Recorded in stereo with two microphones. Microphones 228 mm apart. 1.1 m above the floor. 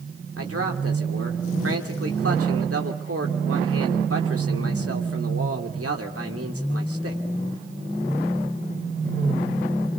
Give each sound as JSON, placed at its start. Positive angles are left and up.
{"t": 0.4, "sound": "a man speaking", "side_deg": -85, "distance_m": 3.0}